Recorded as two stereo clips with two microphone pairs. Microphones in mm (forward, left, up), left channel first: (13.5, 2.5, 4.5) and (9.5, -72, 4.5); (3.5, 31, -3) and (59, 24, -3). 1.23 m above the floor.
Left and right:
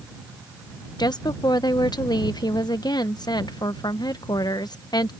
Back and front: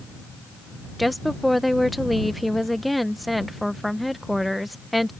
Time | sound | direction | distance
1.0 | a woman speaking | 80° left | ?